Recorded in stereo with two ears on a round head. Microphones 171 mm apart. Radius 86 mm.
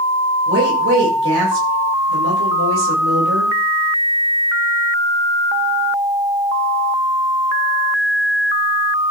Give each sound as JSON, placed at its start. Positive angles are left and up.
{"t": 0.5, "sound": "a woman speaking", "side_deg": -65, "distance_m": 9.5}